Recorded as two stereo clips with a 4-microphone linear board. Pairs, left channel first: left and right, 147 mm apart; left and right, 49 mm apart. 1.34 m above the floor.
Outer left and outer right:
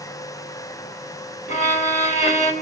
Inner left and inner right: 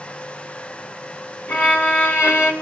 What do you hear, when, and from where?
1.5 s a violin: 55° left (ahead or behind), 3.5 m